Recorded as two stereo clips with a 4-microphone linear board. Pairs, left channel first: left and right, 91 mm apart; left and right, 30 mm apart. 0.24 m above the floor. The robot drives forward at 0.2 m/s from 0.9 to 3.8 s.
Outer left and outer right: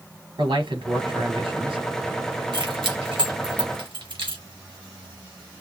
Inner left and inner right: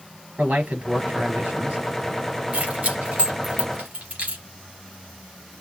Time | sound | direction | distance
0.4 | a man speaking | 65° right (ahead or behind) | 3.5 m
2.5 | keys jangling | 60° right (ahead or behind) | 3.5 m